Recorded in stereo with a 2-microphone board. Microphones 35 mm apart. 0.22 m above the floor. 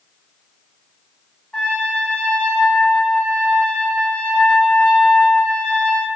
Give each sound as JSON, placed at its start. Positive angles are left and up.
{"t": 1.5, "sound": "a trumpet", "side_deg": 25, "distance_m": 1.1}